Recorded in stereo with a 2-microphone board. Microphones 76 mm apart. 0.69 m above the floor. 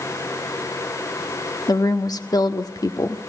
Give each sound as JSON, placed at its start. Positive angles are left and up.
{"t": 1.7, "sound": "a woman speaking", "side_deg": 55, "distance_m": 1.3}